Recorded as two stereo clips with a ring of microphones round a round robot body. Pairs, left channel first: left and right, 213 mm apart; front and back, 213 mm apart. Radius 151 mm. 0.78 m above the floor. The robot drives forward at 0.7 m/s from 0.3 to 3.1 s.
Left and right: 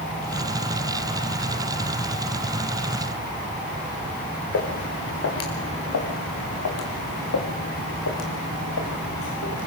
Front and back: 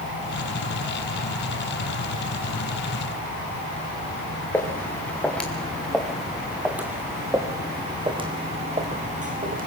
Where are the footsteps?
80° left, 3.5 m; by 9.7 s 135° left, 2.5 m.